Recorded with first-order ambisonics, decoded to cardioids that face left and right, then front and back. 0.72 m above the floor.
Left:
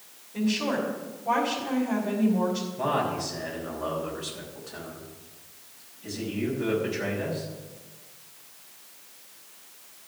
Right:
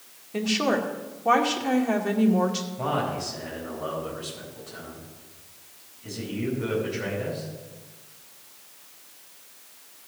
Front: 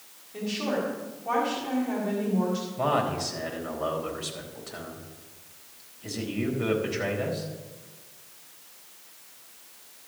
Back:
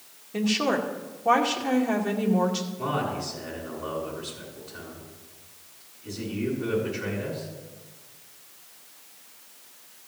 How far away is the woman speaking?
About 1.9 m.